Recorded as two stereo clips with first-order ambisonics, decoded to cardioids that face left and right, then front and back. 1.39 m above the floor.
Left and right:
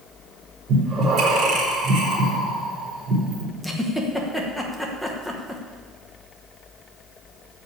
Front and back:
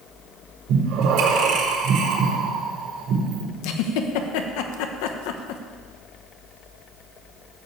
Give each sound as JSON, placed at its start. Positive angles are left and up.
{"t": 0.7, "sound": "breathing", "azimuth_deg": -145, "distance_m": 4.0}
{"t": 3.6, "sound": "a giggle", "azimuth_deg": 0, "distance_m": 1.1}